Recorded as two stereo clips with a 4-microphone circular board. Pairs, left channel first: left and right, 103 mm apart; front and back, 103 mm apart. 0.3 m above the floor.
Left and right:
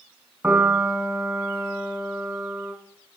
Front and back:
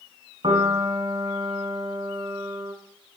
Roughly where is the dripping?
I don't hear dripping.